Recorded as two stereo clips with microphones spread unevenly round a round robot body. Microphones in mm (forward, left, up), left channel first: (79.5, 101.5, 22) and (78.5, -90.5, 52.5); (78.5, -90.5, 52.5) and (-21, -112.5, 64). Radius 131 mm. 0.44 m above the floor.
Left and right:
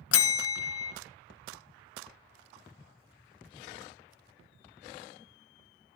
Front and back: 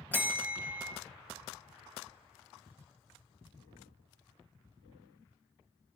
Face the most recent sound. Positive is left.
turn(degrees=95)